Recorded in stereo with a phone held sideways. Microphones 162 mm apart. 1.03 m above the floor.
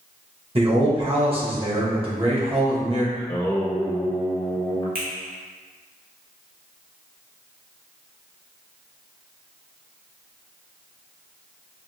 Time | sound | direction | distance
0.6 | a man speaking | 40° right (ahead or behind) | 1.3 m
3.1 | singing | 25° left (ahead or behind) | 1.7 m
5.0 | a finger snap | 75° right (ahead or behind) | 1.4 m